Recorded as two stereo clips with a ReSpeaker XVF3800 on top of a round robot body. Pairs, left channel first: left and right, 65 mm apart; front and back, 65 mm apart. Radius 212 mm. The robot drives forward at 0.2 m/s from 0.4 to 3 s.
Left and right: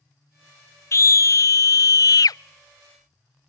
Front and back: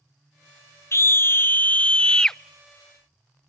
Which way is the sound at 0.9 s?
45° left.